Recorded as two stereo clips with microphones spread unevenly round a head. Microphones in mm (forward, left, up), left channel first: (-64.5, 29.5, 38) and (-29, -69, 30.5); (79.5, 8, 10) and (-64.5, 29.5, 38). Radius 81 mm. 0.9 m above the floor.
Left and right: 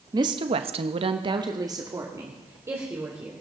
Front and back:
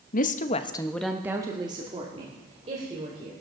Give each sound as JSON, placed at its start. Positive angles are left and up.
{"t": 0.1, "sound": "a woman speaking", "azimuth_deg": -15, "distance_m": 1.2}